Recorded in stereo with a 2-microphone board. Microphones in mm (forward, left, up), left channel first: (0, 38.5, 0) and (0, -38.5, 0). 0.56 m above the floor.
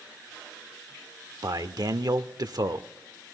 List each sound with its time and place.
1.4 s a man speaking: 60° right (ahead or behind), 1.2 m